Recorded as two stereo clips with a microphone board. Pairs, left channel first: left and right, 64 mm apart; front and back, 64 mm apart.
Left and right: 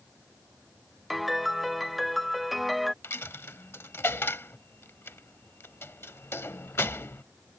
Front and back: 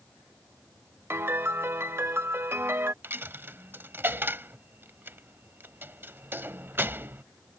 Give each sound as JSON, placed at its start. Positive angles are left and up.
{"t": 1.1, "sound": "a piano", "azimuth_deg": 180}
{"t": 3.0, "sound": "a dropped coin", "azimuth_deg": 130}